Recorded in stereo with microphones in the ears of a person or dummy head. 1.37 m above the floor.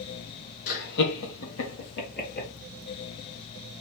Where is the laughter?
45° left (ahead or behind), 1.2 m; by 2.5 s 50° left (ahead or behind), 1.6 m.